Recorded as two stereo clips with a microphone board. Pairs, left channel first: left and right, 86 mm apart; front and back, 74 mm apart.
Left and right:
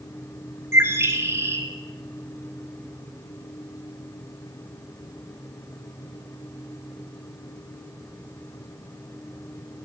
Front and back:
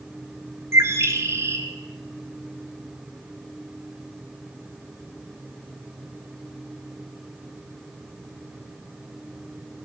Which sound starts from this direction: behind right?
A bird, at 0.7 s.